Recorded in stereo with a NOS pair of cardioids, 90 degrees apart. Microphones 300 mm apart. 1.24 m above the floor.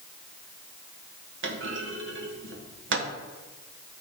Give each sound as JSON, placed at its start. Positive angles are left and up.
{"t": 1.4, "sound": "a clunk", "azimuth_deg": -40, "distance_m": 1.4}